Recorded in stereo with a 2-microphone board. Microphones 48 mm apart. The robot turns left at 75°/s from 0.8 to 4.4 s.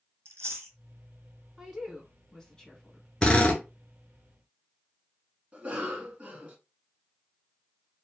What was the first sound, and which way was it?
Chewing, 75° right (ahead or behind).